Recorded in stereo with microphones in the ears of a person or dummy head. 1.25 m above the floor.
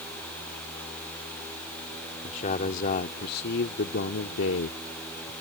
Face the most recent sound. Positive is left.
turn(degrees=85)